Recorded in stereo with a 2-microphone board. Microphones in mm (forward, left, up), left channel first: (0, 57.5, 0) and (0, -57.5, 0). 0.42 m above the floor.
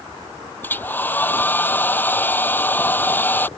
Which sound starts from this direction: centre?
A hair dryer, at 0.6 s.